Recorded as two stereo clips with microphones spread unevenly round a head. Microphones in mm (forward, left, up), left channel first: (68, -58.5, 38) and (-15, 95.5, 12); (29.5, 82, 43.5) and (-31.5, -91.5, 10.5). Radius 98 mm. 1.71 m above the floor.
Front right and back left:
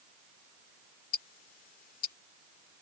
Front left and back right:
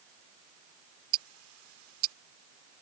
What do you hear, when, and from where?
1.1 s ticking: 110° right